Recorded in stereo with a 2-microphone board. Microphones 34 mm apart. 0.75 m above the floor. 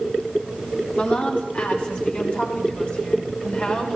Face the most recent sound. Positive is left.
turn(degrees=45)  # may be behind; listen again after turning